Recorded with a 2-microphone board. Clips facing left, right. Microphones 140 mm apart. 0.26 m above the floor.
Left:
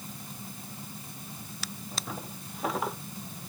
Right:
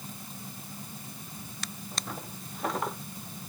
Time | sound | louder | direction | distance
1.6 | a drawer | left 1 dB | 5° left (ahead or behind) | ?